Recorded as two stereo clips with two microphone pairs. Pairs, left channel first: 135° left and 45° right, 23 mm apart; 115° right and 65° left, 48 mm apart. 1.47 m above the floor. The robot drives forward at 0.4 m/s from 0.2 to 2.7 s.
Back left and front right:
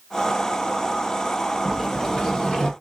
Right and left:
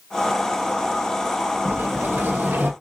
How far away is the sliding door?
About 1.1 m.